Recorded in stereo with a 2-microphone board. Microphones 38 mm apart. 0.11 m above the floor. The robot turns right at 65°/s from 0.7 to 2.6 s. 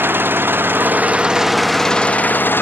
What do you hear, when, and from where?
0.0 s an engine running: 60° right; by 2.6 s 65° left